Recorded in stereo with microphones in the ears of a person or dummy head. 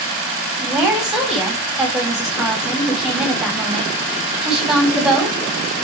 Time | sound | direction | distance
0.6 | a woman speaking | centre (ahead or behind) | 3 m